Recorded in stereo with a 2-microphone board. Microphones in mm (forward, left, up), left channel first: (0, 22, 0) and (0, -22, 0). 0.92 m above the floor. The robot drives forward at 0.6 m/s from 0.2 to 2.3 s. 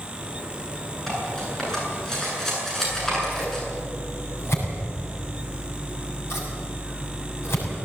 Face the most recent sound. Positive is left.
turn(degrees=80)